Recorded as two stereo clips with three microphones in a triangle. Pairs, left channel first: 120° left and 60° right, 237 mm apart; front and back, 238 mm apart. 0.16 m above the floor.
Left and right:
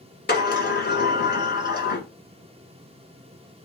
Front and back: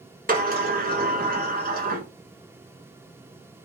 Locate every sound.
0.3 s a sliding door: 145° left, 1.2 m